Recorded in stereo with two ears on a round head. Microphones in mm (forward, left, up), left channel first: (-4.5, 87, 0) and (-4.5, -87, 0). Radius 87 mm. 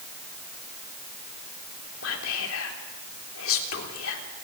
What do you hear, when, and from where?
2.0 s whispering: 80° left, 3.5 m